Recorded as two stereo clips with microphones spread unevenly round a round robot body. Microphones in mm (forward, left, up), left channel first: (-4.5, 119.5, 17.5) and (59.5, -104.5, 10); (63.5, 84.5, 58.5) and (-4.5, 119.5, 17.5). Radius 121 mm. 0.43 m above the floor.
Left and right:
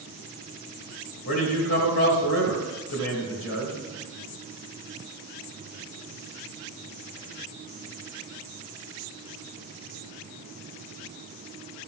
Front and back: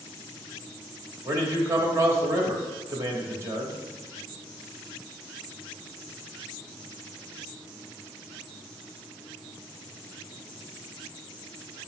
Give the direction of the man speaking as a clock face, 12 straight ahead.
7 o'clock.